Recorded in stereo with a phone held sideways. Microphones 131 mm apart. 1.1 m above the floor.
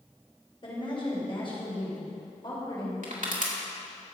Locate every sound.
0.6 s a woman speaking: 40° left (ahead or behind), 4.5 m
3.0 s crushing: 75° right (ahead or behind), 2.5 m